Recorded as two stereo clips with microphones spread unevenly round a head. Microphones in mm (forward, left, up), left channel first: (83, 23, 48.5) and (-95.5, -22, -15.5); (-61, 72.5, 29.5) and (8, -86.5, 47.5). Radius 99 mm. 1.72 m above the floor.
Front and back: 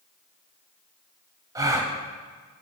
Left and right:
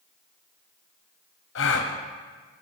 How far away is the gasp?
About 0.6 m.